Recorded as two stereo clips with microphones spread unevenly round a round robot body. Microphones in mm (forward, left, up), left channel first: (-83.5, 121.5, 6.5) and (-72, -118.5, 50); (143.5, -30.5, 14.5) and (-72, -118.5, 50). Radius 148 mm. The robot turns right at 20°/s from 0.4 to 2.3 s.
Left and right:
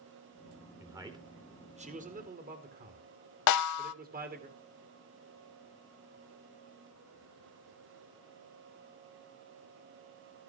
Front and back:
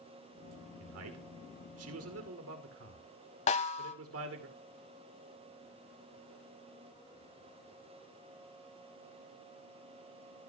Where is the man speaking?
175° right, 2.5 m; by 4.5 s 145° right, 2.5 m.